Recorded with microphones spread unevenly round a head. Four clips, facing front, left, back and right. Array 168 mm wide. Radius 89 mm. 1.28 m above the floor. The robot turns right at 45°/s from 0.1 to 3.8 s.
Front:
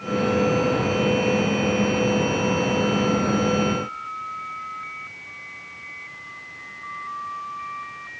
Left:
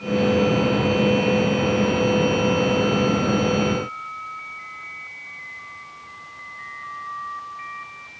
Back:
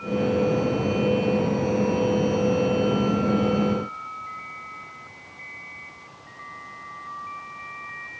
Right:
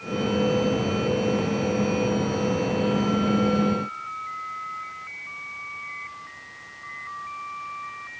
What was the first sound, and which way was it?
Only background noise.